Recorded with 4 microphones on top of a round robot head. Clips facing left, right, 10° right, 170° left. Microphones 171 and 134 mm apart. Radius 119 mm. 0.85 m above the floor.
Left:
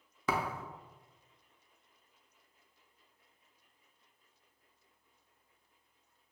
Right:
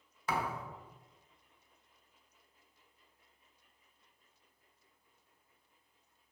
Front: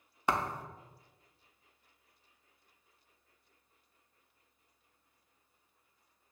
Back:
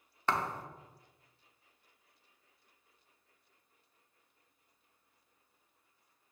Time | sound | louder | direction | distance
0.3 | a thud | left 1 dB, front 1 dB | 65° left | 0.5 m